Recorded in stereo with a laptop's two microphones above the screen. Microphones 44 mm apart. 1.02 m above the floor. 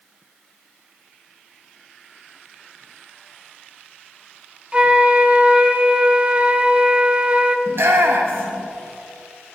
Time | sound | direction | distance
4.7 | a flute | 25° right (ahead or behind) | 0.7 m
7.7 | a shout | 65° right (ahead or behind) | 1.1 m